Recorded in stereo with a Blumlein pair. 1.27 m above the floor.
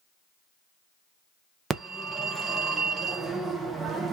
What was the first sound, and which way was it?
A phone ringing, 15° right.